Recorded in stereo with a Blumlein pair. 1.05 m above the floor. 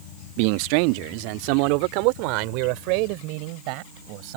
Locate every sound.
0.4 s a man speaking: 45° right